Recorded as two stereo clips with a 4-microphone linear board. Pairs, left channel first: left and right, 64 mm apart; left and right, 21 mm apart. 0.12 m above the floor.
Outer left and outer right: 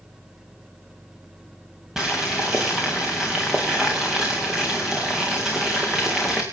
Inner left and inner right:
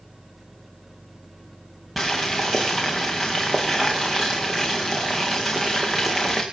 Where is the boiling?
5° right (ahead or behind), 3.5 m.